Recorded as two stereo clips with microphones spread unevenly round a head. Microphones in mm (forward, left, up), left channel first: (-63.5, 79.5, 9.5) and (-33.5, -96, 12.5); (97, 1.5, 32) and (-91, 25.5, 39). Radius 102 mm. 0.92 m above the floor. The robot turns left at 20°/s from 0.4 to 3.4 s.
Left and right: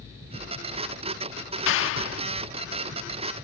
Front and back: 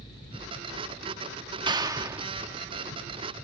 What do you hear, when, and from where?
1.7 s a clap: 105° left; by 2.3 s 95° left